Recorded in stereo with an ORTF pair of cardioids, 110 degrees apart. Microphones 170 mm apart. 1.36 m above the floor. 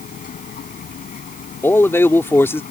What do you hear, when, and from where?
0.0 s a machine running: 55° left
1.6 s a man speaking: 15° left